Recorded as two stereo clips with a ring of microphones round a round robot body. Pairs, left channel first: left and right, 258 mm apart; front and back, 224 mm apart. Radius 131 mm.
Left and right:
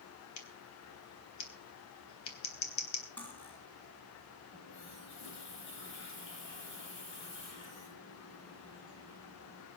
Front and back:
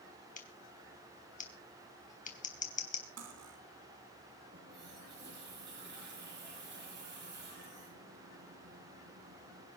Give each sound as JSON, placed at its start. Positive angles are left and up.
{"t": 0.4, "sound": "scissors", "azimuth_deg": 55, "distance_m": 3.5}
{"t": 3.2, "sound": "cutlery clinking", "azimuth_deg": 175, "distance_m": 3.5}
{"t": 4.5, "sound": "a running tap", "azimuth_deg": 135, "distance_m": 9.5}